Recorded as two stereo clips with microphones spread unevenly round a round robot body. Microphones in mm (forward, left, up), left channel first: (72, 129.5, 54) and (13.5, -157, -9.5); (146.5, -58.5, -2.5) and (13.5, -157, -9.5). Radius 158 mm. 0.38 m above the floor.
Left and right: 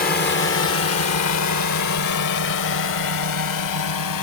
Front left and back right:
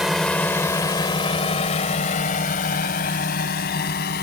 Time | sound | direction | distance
0.0 | a drone | 130° left | ?